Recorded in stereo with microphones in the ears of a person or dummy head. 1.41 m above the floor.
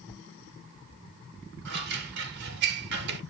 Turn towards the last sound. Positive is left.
turn(degrees=-60)  # may be behind; listen again after turning